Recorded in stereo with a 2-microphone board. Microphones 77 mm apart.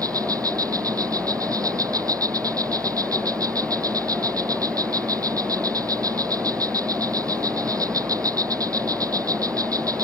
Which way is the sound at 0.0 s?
50° right (ahead or behind).